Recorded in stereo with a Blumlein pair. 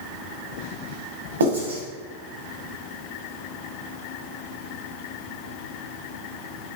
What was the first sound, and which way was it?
Writing, 65° right.